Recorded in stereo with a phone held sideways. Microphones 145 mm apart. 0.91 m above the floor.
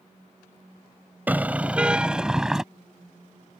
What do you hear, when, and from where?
1.3 s a car horn: 10° right (ahead or behind); by 2.6 s 5° right (ahead or behind)